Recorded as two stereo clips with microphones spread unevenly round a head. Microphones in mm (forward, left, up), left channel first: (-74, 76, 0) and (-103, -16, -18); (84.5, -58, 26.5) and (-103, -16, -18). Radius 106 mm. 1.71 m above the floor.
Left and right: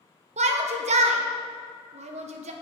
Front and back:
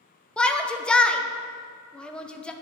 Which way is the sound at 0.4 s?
95° right.